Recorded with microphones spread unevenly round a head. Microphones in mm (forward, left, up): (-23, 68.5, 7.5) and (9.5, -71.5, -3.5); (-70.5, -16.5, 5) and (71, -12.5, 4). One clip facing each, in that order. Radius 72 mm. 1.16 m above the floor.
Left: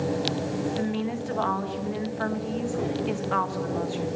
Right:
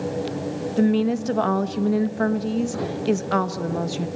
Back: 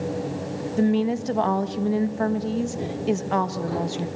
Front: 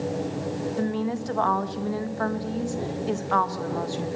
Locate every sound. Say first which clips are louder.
0.8 s a woman speaking: right 8 dB, back 9 dB; 115° right, 1.5 m